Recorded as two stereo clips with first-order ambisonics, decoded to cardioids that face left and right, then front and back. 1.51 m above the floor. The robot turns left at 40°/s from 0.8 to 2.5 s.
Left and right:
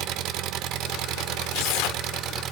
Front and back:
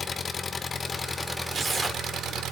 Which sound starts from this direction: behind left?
Tearing paper, at 1.5 s.